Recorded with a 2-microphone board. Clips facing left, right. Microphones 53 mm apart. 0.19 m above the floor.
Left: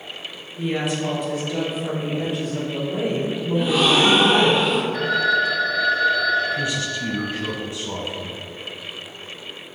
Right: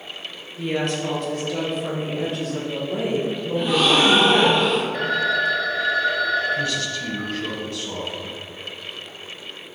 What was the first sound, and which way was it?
A woman speaking, 10° left (ahead or behind).